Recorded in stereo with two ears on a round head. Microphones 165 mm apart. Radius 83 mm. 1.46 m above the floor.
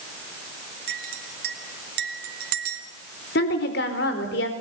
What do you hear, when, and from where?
0.9 s a clink: 55° right (ahead or behind), 2 m
3.4 s a woman speaking: 60° left (ahead or behind), 4 m